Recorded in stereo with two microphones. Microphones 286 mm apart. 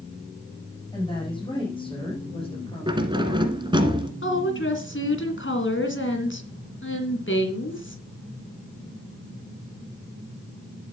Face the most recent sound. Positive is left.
turn(degrees=45)  # may be behind; listen again after turning